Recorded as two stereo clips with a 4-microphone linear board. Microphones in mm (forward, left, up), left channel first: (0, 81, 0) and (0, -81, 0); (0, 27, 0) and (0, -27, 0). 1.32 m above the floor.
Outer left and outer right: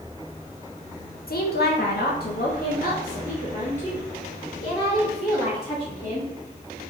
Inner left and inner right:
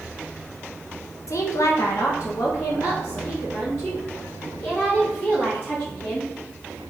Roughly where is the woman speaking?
Left.